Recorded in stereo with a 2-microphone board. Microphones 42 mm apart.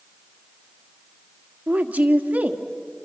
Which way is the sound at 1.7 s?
40° right (ahead or behind).